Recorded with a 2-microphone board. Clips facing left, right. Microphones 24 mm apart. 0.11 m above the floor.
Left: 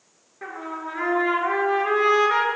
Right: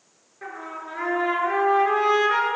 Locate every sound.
0.4 s a trumpet: 10° left (ahead or behind), 1.2 m